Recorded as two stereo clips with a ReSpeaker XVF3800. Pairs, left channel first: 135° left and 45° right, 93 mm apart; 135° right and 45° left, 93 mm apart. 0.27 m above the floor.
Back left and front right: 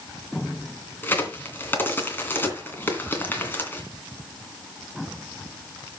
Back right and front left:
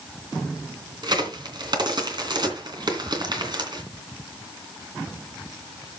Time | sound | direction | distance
1.0 | a crack | 70° left | 2.5 m